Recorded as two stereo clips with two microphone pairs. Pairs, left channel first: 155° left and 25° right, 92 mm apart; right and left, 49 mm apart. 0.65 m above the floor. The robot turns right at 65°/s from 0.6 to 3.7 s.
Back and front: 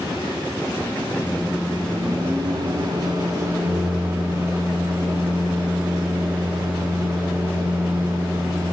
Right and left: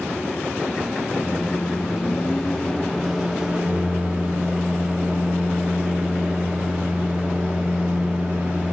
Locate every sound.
1.2 s a microwave: 130° right, 0.8 m; by 8.7 s 35° left, 0.8 m